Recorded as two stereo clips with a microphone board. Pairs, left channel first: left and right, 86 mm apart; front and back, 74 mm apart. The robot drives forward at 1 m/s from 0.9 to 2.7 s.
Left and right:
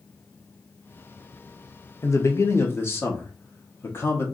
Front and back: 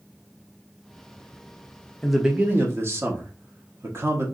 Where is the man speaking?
75° left, 0.7 m; by 4.2 s 145° left, 0.9 m.